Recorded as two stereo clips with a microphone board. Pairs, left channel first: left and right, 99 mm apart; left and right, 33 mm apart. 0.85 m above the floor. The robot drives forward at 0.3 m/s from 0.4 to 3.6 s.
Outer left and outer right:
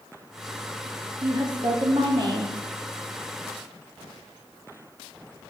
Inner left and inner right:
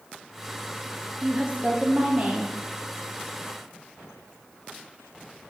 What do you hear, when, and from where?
1.2 s a woman speaking: 40° right (ahead or behind), 0.6 m